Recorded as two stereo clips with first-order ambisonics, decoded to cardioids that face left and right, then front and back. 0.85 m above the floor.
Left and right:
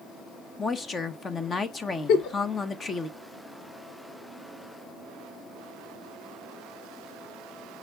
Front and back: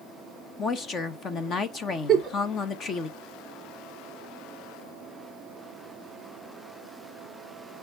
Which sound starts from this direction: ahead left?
A woman speaking, at 0.6 s.